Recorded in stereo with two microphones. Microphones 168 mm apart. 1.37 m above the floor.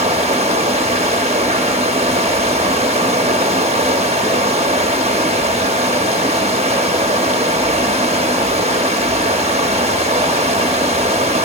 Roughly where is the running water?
Right.